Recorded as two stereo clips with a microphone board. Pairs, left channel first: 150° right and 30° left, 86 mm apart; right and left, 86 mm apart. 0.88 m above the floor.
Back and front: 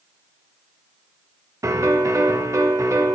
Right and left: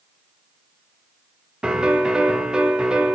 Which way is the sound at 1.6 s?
15° left.